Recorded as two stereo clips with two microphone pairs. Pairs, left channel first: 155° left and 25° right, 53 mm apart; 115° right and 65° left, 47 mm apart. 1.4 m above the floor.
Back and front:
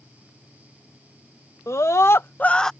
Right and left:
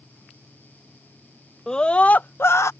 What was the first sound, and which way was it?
A scream, 170° left.